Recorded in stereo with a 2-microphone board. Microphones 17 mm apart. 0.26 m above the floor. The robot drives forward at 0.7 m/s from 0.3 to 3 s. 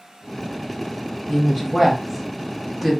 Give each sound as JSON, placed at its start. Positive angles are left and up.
{"t": 1.3, "sound": "a woman speaking", "side_deg": -15, "distance_m": 1.1}